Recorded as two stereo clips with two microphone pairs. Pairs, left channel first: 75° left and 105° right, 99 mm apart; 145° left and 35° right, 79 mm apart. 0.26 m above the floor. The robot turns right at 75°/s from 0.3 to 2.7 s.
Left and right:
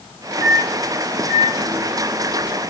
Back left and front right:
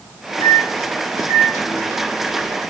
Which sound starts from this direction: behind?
A microwave, at 0.4 s.